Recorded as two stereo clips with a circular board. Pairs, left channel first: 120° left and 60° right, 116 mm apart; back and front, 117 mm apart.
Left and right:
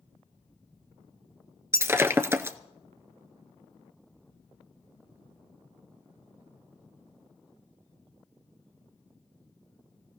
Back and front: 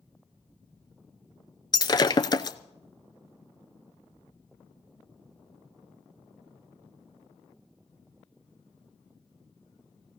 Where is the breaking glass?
130° right, 0.7 m.